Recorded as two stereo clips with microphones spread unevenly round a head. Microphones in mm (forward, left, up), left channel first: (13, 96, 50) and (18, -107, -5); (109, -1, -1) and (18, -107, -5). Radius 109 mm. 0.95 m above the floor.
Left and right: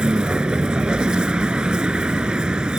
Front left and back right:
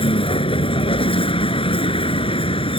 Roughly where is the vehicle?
Ahead.